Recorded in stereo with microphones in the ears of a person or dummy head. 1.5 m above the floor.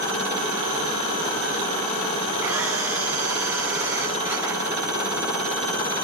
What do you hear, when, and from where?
2.4 s a camera shutter: 10° right (ahead or behind), 7 m